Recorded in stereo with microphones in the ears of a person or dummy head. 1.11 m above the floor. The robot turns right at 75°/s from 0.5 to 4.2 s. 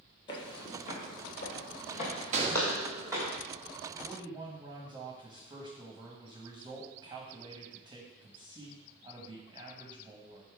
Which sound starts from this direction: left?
Footsteps, at 0.3 s.